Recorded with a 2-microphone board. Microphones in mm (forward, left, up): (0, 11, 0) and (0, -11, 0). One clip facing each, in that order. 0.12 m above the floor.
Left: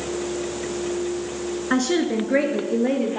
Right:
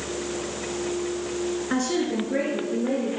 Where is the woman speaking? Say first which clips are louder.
Left 6 dB; 25° left (ahead or behind), 1.2 m; by 3.2 s 35° left (ahead or behind), 2.5 m.